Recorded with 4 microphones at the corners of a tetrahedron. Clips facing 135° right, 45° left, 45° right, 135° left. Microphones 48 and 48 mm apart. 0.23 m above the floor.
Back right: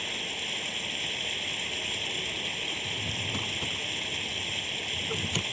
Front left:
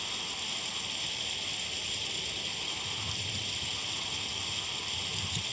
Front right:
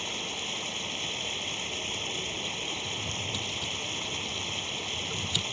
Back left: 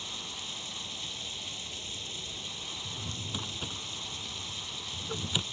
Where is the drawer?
160° right.